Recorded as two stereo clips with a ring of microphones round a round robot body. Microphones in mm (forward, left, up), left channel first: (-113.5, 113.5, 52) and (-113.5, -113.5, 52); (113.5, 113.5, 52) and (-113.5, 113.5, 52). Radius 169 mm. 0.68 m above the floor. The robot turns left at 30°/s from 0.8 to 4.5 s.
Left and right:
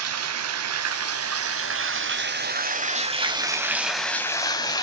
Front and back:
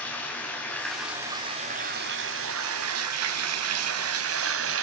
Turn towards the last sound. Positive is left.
turn(degrees=165)